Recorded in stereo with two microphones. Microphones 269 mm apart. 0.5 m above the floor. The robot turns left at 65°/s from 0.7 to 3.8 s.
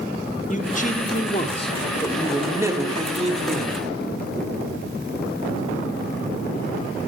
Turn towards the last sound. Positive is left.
turn(degrees=-30)  # may be behind; listen again after turning